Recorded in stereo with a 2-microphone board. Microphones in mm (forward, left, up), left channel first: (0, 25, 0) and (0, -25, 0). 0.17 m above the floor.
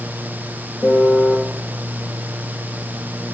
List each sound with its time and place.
0.8 s a piano: 60° left (ahead or behind), 1.7 m